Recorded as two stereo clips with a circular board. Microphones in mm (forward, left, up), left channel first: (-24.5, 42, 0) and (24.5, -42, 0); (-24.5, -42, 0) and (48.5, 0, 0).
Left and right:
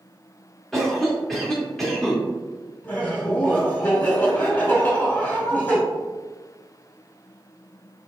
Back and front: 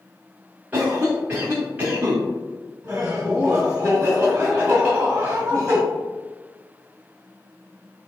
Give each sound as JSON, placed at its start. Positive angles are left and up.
{"t": 0.7, "sound": "a cough", "azimuth_deg": 40, "distance_m": 1.0}
{"t": 2.8, "sound": "laughter", "azimuth_deg": 75, "distance_m": 1.0}